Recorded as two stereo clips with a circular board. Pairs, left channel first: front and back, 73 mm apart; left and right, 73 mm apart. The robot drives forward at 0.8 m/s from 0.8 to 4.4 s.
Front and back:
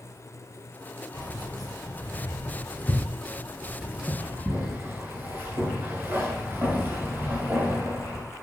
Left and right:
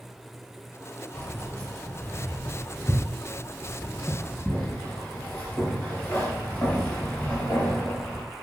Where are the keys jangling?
20° left, 2.5 m; by 8.2 s 140° left, 1.4 m.